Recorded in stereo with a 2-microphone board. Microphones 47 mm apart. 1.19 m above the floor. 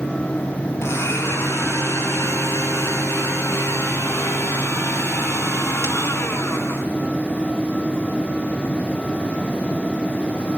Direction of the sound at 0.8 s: 80° left.